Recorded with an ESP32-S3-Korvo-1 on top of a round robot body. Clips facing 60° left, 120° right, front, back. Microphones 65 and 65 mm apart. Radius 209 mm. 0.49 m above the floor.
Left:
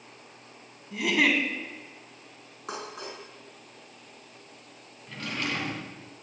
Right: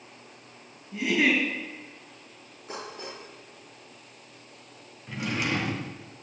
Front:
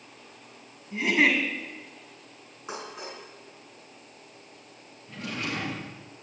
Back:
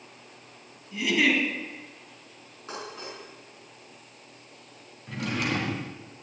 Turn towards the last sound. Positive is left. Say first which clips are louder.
# right 3 dB, back 4 dB
turn(degrees=165)